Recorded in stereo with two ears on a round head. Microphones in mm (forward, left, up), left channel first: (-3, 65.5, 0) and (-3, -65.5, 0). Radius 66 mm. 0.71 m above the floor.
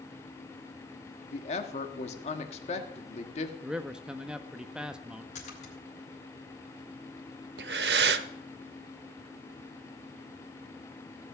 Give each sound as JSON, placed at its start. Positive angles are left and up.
{"t": 1.3, "sound": "a woman speaking", "side_deg": 45, "distance_m": 1.6}
{"t": 3.6, "sound": "a man speaking", "side_deg": -5, "distance_m": 0.7}
{"t": 5.3, "sound": "a splash", "side_deg": 50, "distance_m": 4.0}
{"t": 7.6, "sound": "breathing", "side_deg": -80, "distance_m": 0.9}